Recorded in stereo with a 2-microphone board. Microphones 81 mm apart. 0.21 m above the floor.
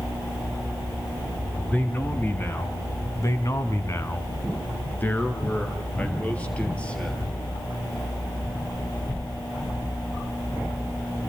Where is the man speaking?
25° left (ahead or behind), 3 m; by 7.3 s 10° left (ahead or behind), 6.5 m.